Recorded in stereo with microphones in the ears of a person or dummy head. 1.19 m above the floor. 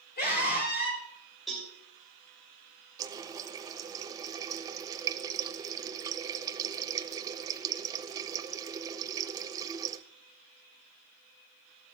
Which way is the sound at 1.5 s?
Centre (ahead or behind).